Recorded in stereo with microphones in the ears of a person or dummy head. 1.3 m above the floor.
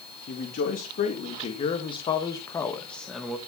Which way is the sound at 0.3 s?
50° left (ahead or behind).